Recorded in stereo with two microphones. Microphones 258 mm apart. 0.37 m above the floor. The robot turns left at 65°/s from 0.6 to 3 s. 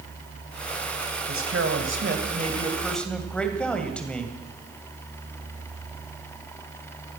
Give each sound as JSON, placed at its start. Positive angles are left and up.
{"t": 1.3, "sound": "a man speaking", "azimuth_deg": -75, "distance_m": 2.0}